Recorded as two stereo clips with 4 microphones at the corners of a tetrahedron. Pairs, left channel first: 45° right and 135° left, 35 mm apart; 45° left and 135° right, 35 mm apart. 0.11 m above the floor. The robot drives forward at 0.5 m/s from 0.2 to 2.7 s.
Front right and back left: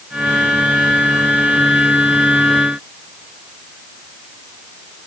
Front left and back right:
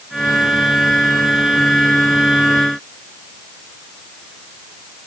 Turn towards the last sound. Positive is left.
No sound to turn to.